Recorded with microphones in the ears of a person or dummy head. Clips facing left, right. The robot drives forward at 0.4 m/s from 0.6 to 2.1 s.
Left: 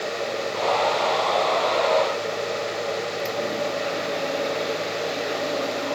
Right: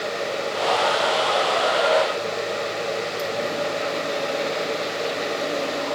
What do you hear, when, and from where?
Only background noise.